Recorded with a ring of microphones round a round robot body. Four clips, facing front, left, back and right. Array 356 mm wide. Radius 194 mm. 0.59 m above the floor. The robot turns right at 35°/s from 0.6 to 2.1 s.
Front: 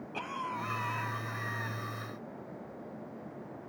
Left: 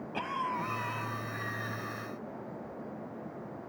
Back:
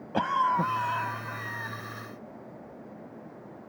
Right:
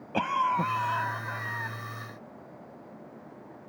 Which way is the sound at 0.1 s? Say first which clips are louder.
Right 8 dB, back 13 dB; 145° right.